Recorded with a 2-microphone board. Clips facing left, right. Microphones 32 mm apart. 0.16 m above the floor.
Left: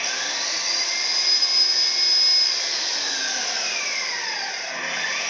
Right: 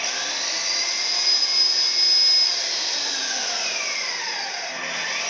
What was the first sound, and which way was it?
An engine running, centre (ahead or behind).